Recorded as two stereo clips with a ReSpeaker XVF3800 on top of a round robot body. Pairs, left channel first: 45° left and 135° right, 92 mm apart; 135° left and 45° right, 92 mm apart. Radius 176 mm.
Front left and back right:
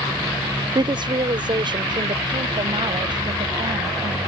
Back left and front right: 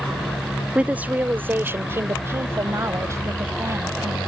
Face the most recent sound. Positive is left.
turn(degrees=-100)